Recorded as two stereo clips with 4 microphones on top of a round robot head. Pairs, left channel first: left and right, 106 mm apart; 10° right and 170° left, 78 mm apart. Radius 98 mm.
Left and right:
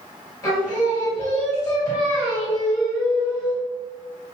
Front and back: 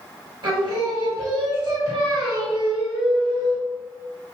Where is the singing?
150° left, 1.6 m.